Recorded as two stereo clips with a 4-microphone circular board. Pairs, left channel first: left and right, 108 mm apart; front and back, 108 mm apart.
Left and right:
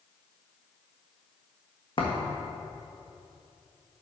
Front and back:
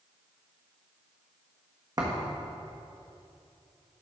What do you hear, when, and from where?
2.0 s a thud: 125° left, 1.5 m